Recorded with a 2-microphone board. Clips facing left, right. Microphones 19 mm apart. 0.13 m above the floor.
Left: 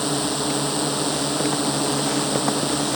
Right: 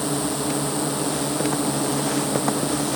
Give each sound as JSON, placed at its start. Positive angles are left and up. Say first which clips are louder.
{"t": 0.0, "sound": "a drone", "louder": "left 1 dB", "side_deg": 30}